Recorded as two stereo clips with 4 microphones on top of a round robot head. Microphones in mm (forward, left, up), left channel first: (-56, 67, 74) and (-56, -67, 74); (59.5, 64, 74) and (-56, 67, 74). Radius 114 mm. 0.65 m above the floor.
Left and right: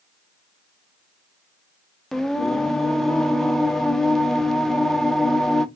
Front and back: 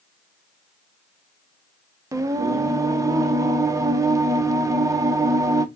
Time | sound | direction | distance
2.1 | singing | 175° left | 0.6 m